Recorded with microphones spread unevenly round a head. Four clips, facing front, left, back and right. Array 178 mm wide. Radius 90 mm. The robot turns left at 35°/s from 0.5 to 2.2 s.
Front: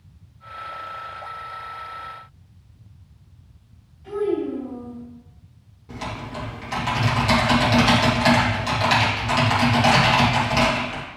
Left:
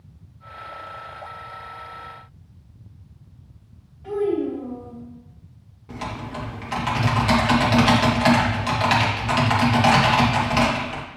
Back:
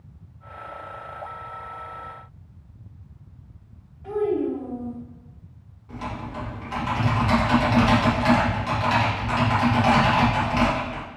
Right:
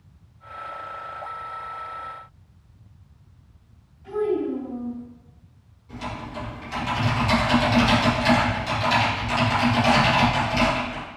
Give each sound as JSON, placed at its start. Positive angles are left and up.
{"t": 4.0, "sound": "a child speaking", "azimuth_deg": 135, "distance_m": 3.0}
{"t": 5.9, "sound": "typing on a keyboard", "azimuth_deg": 65, "distance_m": 2.0}